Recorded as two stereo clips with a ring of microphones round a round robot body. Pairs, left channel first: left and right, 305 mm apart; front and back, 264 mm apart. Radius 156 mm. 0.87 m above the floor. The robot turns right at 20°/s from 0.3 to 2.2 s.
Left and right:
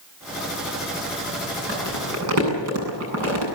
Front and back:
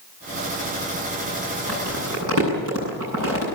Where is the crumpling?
140° right, 8.5 m; by 3.5 s 130° right, 8.5 m.